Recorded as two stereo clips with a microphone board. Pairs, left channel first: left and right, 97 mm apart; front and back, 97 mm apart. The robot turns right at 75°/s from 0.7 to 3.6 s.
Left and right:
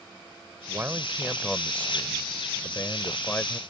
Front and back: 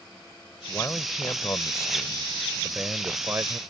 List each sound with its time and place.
0.7 s a man speaking: 55° right; by 3.6 s 165° left